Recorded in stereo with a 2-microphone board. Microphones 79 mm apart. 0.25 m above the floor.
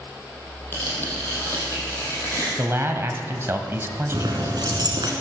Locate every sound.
0.7 s tearing paper: 25° left (ahead or behind), 4 m
2.6 s a man speaking: 35° right (ahead or behind), 1.3 m
4.1 s keys jangling: 65° right (ahead or behind), 2 m